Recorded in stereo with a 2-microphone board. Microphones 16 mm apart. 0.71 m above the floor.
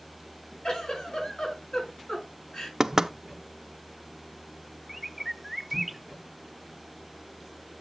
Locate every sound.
0.6 s a giggle: 85° left, 5 m
2.8 s knocking: 40° right (ahead or behind), 0.6 m
4.9 s a bird: 5° right (ahead or behind), 0.7 m